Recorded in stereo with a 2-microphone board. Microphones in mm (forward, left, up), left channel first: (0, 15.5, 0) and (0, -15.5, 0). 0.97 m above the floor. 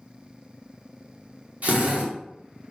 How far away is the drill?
About 2.5 m.